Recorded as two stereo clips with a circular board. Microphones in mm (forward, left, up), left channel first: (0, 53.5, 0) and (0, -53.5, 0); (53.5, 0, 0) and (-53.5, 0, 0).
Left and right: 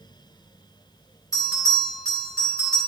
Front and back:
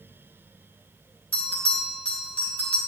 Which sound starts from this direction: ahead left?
A bell, at 1.3 s.